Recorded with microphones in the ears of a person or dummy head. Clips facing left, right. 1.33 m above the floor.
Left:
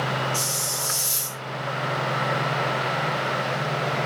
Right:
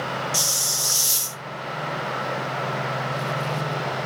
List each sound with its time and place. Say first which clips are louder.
0.3 s a hiss: left 1 dB; 55° right (ahead or behind), 0.5 m